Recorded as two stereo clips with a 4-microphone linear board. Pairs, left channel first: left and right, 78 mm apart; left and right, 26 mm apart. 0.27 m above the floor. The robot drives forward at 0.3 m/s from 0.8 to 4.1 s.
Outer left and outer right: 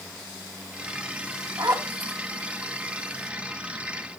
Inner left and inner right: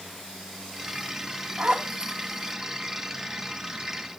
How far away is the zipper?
About 2.5 m.